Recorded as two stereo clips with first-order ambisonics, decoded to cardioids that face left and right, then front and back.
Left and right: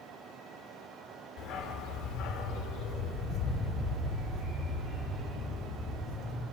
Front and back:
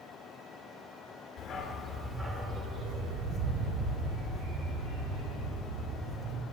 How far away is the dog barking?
About 0.9 m.